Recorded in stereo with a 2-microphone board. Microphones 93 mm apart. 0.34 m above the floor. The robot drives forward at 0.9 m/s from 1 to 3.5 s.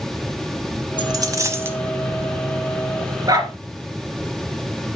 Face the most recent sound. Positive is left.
turn(degrees=-45)  # may be behind; listen again after turning